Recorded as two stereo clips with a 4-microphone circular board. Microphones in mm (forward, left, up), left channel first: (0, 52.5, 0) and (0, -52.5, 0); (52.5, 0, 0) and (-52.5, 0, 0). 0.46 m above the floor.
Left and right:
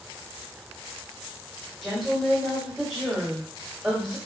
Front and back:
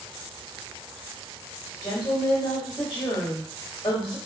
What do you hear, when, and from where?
1.8 s a woman speaking: 5° right, 1.8 m